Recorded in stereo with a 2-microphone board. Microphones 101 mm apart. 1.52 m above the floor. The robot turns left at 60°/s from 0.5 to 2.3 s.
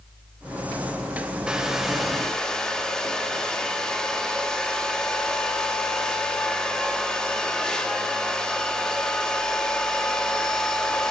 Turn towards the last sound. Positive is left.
turn(degrees=5)  # may be behind; listen again after turning